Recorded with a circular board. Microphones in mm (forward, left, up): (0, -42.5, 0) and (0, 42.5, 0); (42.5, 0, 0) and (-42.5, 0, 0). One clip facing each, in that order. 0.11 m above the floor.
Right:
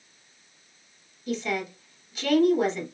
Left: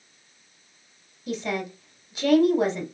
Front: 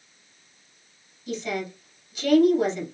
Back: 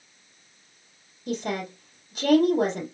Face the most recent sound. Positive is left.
turn(degrees=160)